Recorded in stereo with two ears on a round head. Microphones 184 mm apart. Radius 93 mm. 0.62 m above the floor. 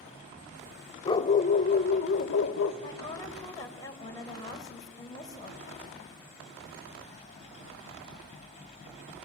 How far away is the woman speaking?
About 3.5 m.